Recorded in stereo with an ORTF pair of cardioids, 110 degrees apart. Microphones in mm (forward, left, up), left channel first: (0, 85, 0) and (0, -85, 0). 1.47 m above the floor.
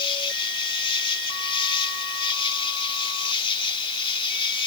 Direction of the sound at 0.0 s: 35° left.